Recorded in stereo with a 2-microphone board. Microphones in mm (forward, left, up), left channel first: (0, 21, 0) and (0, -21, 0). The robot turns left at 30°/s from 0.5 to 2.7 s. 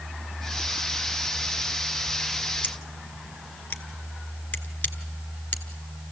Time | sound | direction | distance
2.6 | scissors | 35° left (ahead or behind) | 1.2 m